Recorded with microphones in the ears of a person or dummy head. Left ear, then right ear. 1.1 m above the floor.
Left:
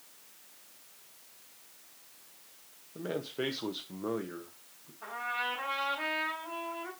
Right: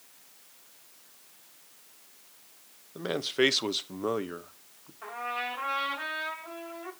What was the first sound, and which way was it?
A man speaking, 40° right (ahead or behind).